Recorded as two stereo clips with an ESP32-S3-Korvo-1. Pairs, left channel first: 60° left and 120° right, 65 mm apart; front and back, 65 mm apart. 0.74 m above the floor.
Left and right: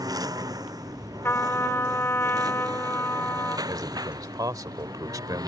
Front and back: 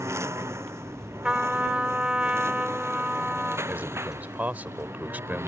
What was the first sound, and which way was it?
A lawn mower, 135° right.